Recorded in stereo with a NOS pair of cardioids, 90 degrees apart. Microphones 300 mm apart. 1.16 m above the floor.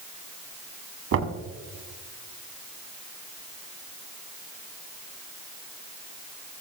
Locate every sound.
1.1 s knocking: 55° right, 1.5 m